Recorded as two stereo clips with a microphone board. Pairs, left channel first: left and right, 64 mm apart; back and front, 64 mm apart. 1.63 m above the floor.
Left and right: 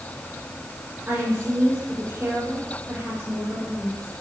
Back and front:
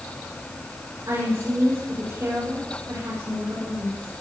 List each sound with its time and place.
1.1 s a woman speaking: 25° right, 7.5 m